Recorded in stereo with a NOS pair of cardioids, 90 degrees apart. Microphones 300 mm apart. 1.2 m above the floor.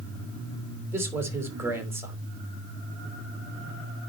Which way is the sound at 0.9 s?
5° right.